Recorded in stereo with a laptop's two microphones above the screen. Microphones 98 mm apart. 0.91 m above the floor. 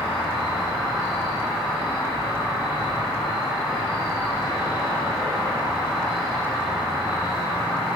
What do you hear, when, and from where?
0.0 s an insect: 5° right (ahead or behind), 1.3 m